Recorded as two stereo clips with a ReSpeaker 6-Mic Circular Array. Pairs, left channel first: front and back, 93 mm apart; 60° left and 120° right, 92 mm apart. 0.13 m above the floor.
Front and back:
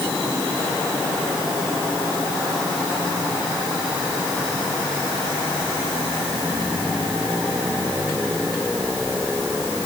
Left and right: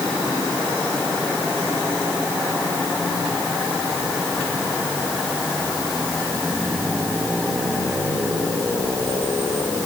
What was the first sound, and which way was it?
Only background noise.